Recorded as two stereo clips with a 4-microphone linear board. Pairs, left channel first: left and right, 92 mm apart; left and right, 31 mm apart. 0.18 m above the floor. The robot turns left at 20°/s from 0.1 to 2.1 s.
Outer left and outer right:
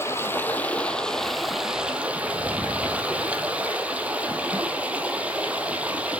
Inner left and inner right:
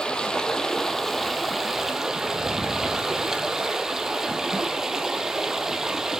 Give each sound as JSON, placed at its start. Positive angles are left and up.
{"t": 0.0, "sound": "running water", "azimuth_deg": 25, "distance_m": 0.8}